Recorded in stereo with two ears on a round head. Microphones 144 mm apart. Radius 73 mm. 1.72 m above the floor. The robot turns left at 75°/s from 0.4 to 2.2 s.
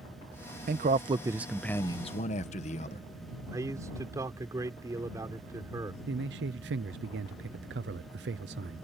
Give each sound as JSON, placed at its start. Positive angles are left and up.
{"t": 0.7, "sound": "a man speaking", "azimuth_deg": -115}
{"t": 3.5, "sound": "a man speaking", "side_deg": -20}
{"t": 6.1, "sound": "a man speaking", "side_deg": -80}